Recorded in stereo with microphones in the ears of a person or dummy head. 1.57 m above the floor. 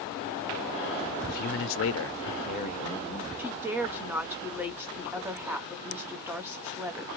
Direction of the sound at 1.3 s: 45° left (ahead or behind).